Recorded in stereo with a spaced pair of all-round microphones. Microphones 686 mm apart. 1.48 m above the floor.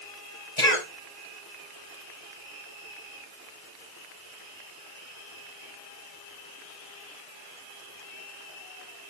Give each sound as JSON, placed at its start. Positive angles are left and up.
{"t": 0.6, "sound": "a cough", "side_deg": 75, "distance_m": 6.5}